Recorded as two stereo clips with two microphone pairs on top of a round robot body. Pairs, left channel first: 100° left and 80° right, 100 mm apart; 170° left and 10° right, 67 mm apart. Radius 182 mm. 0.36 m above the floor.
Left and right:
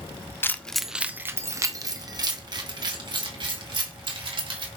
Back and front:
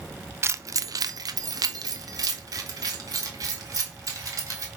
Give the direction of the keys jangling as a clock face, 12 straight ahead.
11 o'clock.